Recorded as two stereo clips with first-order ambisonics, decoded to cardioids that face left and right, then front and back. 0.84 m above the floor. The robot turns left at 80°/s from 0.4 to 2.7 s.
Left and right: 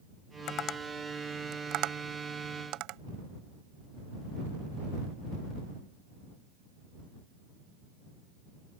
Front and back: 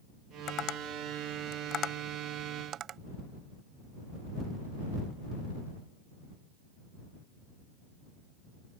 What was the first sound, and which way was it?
Tapping, 55° left.